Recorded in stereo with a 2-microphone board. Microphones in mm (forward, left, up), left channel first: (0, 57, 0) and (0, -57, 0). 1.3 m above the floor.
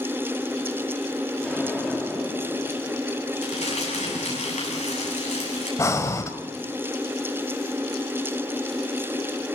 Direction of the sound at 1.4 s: Centre (ahead or behind).